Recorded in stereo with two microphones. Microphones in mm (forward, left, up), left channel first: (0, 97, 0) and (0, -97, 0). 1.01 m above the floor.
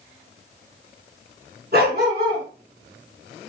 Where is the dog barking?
55° right (ahead or behind), 5.5 m.